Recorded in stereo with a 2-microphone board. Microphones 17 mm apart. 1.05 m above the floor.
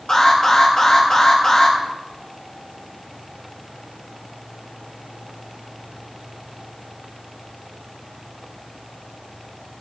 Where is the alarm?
35° left (ahead or behind), 4.5 m.